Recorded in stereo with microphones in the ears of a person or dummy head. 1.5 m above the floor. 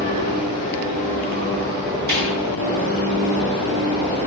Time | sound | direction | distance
2.1 | a snare drum | 55° right (ahead or behind) | 3 m